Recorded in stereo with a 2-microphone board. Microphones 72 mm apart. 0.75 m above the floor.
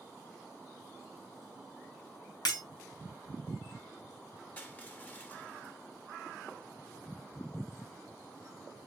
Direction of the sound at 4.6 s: 25° left (ahead or behind).